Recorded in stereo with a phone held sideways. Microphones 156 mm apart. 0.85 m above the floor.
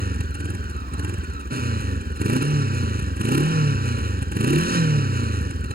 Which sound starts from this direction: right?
A motorcycle, at 0.0 s.